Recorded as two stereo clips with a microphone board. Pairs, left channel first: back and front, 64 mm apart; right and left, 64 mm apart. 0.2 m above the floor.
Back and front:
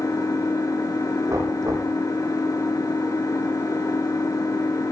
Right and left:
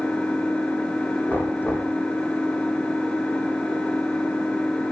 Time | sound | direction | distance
0.0 | an engine running | 165° right | 3.5 m
1.3 | knocking | 30° right | 9.5 m